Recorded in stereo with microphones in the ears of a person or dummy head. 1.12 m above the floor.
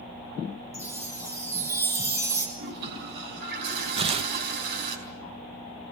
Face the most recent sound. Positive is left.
turn(degrees=-25)  # may be behind; listen again after turning